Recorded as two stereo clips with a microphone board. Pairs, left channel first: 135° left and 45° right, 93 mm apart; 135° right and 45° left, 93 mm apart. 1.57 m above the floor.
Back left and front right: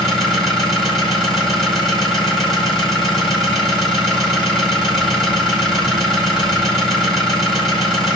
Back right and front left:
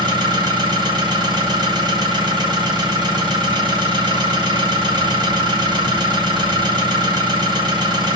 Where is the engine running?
45° left, 1.7 m.